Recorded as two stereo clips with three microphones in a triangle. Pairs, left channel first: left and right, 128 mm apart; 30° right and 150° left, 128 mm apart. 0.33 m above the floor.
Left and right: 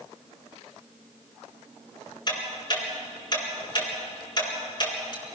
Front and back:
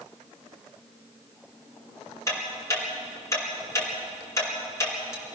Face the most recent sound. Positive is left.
turn(degrees=35)